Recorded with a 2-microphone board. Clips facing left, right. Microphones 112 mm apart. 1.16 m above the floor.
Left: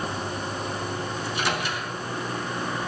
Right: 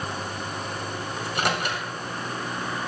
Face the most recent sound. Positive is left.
turn(degrees=-60)  # may be behind; listen again after turning